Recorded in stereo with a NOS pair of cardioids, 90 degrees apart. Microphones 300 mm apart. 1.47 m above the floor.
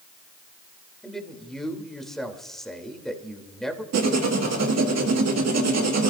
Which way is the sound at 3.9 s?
65° right.